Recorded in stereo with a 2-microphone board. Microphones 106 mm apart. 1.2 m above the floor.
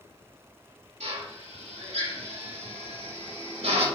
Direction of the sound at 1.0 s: 85° right.